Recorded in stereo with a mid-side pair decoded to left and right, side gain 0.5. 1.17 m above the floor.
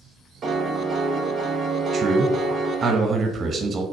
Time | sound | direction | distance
0.4 | a piano | 50° right | 0.9 m
1.9 | a man speaking | 40° right | 1.0 m